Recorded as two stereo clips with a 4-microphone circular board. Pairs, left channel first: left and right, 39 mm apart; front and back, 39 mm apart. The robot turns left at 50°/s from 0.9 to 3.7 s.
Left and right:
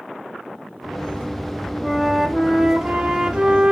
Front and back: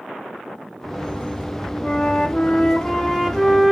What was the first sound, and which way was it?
A flute, 15° left.